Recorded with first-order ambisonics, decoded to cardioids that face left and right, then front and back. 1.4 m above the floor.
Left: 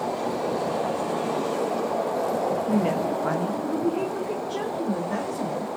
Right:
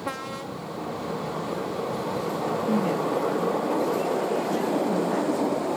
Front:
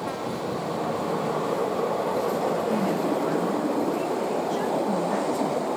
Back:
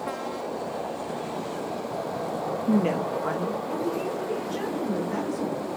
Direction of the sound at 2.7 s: 165° left.